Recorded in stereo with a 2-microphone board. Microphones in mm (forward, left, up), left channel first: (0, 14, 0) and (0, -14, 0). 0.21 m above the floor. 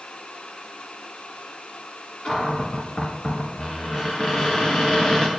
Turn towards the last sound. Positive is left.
turn(degrees=40)  # may be behind; listen again after turning